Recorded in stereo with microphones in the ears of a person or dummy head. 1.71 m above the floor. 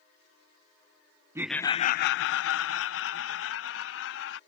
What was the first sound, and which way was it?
Laughter, 15° right (ahead or behind).